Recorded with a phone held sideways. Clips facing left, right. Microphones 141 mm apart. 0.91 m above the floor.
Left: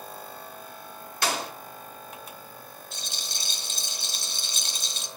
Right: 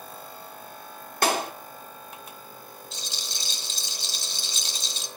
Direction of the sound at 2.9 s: 65° left (ahead or behind).